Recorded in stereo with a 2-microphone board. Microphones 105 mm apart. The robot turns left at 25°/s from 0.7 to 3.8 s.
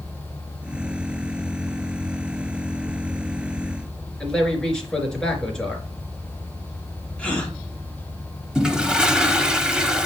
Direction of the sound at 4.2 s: 5° left (ahead or behind).